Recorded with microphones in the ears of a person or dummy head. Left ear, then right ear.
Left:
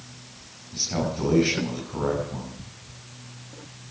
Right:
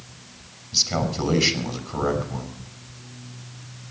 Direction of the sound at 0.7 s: 90° right.